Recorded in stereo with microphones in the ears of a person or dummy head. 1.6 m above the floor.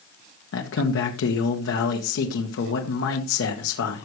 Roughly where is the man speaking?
Left.